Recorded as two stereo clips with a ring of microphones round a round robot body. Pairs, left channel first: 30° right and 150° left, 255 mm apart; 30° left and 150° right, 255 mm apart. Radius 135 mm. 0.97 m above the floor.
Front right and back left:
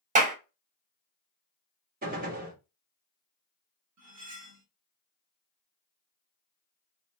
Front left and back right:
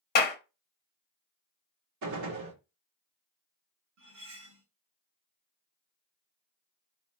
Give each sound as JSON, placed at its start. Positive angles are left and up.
{"t": 0.1, "sound": "a clap", "azimuth_deg": 85, "distance_m": 0.8}
{"t": 2.0, "sound": "a gunshot", "azimuth_deg": -150, "distance_m": 1.9}
{"t": 4.0, "sound": "cutlery clinking", "azimuth_deg": 180, "distance_m": 1.8}